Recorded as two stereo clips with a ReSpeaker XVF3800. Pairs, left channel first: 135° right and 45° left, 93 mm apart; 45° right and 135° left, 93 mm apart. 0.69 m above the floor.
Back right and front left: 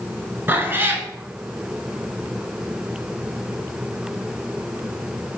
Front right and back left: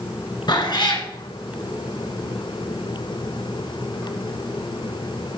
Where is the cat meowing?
20° right, 1.3 m.